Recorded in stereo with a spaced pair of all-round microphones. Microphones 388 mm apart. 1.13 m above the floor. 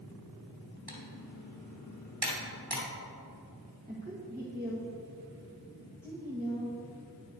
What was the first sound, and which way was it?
Typing on a keyboard, 75° right (ahead or behind).